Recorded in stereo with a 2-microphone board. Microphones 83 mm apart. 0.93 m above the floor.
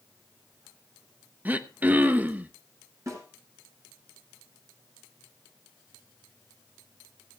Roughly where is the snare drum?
Right.